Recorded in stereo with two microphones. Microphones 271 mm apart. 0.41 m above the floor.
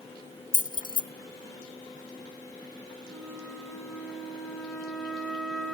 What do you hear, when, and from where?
0.5 s keys jangling: 30° left (ahead or behind), 0.8 m
3.0 s a flute: centre (ahead or behind), 2.5 m